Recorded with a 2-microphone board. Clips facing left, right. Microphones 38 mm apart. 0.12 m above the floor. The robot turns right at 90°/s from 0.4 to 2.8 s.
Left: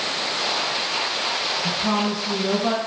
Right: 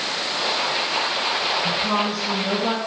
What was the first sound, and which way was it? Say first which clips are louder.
A woman speaking: right 1 dB; 25° left (ahead or behind).